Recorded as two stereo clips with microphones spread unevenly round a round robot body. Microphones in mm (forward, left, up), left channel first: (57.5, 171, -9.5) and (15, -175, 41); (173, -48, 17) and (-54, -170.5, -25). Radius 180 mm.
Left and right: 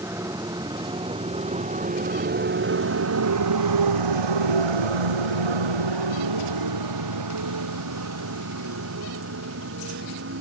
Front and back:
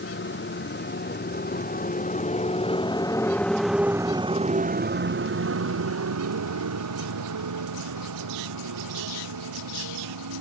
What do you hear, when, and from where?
0.0 s a motorcycle: 15° right; by 10.4 s 155° right